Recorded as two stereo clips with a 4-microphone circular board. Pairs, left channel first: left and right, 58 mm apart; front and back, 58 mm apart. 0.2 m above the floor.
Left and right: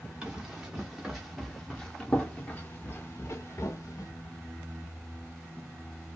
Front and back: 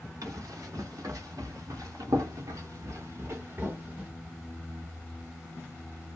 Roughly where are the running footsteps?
Behind.